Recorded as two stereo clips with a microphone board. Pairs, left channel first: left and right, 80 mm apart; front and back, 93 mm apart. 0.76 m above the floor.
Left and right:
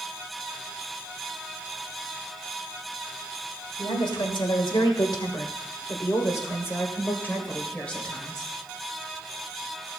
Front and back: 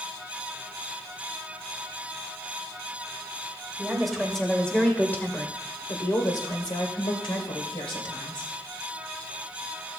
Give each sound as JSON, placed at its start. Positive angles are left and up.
{"t": 3.8, "sound": "a woman speaking", "azimuth_deg": 95, "distance_m": 2.5}